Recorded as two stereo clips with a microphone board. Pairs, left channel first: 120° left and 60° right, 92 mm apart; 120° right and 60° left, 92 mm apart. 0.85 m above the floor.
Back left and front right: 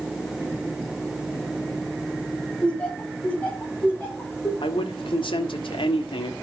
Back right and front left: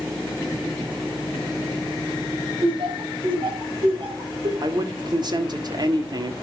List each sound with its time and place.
2.6 s laughter: 45° left, 4 m; by 4.5 s 55° left, 5 m
4.6 s a man speaking: 100° left, 1.8 m